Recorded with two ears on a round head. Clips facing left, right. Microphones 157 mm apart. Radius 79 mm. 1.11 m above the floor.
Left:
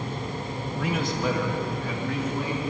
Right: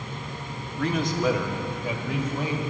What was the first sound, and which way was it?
A man speaking, 10° left (ahead or behind).